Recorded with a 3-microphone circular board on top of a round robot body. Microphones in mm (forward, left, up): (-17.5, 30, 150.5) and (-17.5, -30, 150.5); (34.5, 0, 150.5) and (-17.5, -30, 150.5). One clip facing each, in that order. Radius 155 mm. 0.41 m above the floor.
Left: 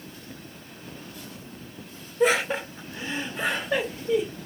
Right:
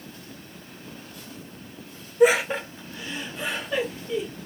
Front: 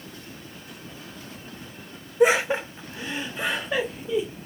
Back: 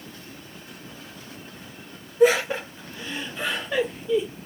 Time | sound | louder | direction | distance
2.2 | laughter | right 4 dB, back 1 dB | 25° right | 1.0 m